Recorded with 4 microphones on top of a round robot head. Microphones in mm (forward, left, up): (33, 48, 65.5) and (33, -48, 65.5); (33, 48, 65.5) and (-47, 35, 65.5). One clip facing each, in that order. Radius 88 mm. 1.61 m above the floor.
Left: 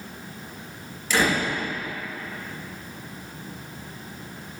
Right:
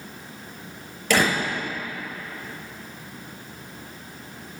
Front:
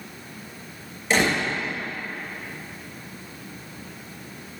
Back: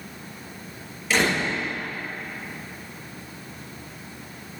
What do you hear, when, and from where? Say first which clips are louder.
1.1 s a door slam: right 1 dB, front 1 dB; 65° right, 6 m